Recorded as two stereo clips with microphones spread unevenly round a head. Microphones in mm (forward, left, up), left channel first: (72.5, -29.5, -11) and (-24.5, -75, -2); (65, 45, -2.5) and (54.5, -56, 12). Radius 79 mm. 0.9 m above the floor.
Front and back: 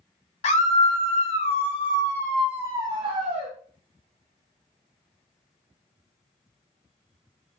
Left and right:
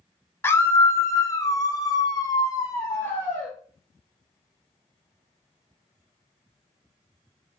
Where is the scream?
20° left, 1.5 m; by 3.5 s 165° left, 1.1 m.